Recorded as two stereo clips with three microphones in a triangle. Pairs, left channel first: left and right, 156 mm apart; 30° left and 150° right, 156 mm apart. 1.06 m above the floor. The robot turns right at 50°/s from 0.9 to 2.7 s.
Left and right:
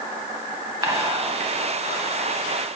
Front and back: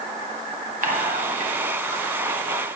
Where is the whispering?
155° right, 1.4 m; by 2.0 s 100° right, 1.4 m.